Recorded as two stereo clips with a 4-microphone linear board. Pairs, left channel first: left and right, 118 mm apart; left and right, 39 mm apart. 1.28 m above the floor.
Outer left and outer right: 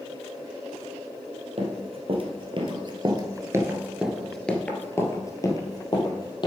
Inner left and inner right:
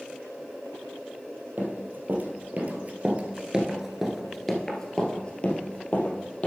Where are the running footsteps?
55° right (ahead or behind), 2.5 m; by 6.5 s 40° left (ahead or behind), 2.5 m.